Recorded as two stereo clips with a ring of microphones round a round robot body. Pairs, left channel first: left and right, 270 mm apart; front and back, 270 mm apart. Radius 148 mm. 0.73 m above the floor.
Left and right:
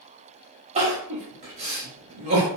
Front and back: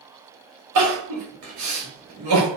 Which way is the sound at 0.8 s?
155° right.